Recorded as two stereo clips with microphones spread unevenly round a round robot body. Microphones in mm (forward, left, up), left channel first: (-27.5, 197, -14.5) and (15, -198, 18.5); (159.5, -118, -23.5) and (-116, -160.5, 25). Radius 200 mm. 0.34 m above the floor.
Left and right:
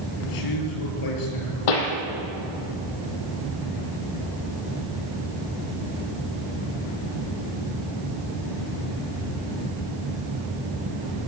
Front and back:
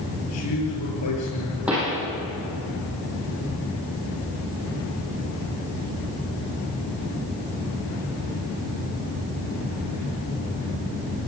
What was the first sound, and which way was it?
A man speaking, 55° left.